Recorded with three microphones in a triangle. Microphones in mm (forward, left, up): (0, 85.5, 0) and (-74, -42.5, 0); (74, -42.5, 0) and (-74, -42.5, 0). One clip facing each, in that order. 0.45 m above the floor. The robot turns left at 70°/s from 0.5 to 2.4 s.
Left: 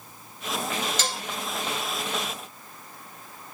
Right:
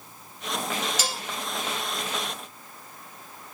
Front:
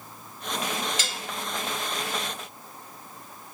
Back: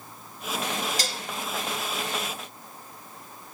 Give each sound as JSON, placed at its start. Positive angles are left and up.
{"t": 1.0, "sound": "dishes clattering", "azimuth_deg": 165, "distance_m": 0.7}